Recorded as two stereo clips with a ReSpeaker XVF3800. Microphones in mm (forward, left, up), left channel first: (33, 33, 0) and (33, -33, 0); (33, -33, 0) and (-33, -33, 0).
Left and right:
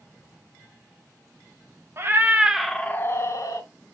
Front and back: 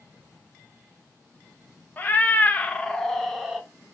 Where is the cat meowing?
55° right, 0.7 m; by 3.7 s 95° left, 0.8 m.